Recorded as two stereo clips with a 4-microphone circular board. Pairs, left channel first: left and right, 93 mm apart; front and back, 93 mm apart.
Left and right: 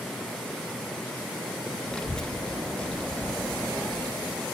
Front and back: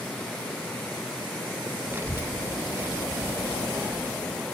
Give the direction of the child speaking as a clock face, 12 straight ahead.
7 o'clock.